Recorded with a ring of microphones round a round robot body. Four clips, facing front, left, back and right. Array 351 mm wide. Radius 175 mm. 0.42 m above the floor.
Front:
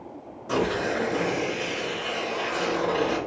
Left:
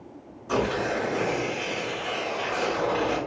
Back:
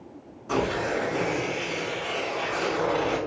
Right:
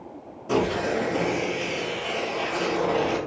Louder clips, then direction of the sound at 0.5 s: Right 2 dB, front 1 dB; 55° right.